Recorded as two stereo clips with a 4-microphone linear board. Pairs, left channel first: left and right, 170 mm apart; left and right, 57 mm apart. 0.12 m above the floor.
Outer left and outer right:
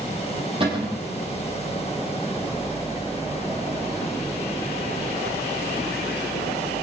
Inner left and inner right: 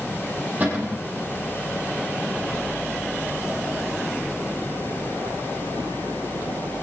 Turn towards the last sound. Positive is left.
turn(degrees=-30)  # may be behind; listen again after turning